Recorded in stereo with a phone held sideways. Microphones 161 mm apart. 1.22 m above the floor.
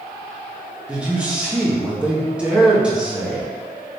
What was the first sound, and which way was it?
A man speaking, 5° right (ahead or behind).